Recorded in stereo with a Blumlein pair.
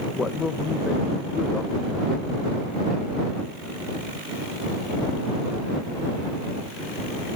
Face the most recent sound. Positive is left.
turn(degrees=15)